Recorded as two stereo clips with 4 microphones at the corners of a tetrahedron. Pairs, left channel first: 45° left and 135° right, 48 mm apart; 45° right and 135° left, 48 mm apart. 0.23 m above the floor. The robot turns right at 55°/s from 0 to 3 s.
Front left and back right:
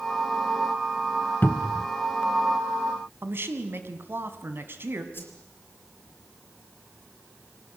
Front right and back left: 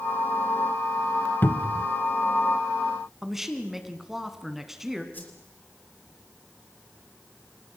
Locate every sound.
1.4 s a cupboard door: 5° right, 0.9 m; by 1.9 s 20° left, 0.9 m
3.2 s a man speaking: 145° right, 2.5 m
5.1 s a whoosh: straight ahead, 4 m